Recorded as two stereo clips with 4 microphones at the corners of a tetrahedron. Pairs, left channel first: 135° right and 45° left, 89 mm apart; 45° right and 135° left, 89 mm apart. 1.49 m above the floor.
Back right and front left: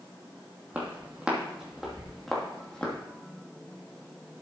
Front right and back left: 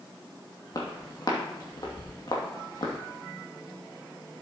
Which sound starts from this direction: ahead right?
Footsteps, at 0.7 s.